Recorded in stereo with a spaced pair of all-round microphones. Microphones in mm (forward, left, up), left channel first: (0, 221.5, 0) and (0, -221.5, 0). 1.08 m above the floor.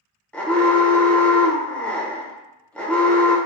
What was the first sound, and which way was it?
An alarm, 5° left (ahead or behind).